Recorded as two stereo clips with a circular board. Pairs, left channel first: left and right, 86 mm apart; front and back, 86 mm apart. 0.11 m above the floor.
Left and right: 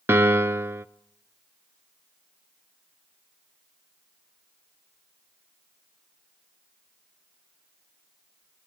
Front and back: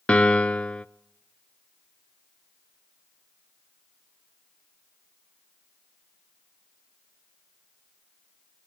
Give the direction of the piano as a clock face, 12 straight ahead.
2 o'clock.